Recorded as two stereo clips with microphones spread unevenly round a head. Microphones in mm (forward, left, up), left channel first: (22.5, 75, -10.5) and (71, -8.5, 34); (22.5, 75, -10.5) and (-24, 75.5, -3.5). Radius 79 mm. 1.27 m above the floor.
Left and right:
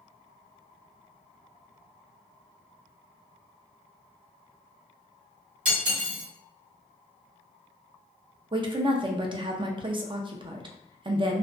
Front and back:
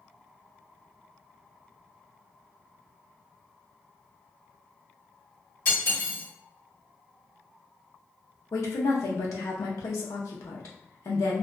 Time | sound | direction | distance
5.7 | cutlery clinking | 55° right | 1.5 m
8.5 | a woman speaking | 15° right | 0.6 m